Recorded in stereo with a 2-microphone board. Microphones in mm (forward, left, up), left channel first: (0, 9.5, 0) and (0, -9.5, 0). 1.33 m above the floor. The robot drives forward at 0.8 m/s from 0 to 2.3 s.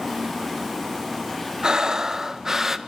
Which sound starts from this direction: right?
Breathing, at 1.6 s.